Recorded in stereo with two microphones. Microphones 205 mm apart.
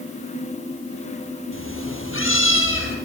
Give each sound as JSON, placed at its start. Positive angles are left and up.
{"t": 1.5, "sound": "a cat meowing", "side_deg": 90, "distance_m": 5.0}